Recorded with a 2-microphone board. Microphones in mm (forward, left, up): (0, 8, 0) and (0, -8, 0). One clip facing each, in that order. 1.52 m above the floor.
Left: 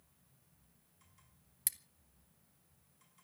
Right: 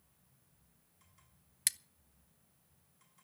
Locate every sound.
1.7 s scissors: 40° right (ahead or behind), 0.7 m